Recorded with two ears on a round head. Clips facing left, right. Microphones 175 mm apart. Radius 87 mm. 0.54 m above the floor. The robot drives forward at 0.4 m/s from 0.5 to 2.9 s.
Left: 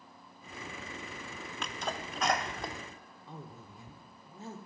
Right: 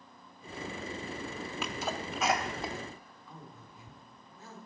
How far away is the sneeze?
About 0.6 m.